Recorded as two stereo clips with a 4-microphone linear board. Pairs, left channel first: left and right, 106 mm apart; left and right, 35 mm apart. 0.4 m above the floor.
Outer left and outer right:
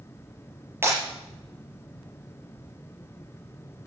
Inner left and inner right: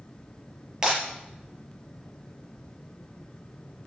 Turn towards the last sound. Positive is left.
turn(degrees=-20)  # may be behind; listen again after turning